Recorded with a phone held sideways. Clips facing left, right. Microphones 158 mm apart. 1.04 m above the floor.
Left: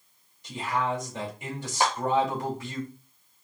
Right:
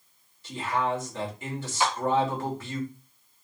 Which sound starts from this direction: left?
A clap, at 1.8 s.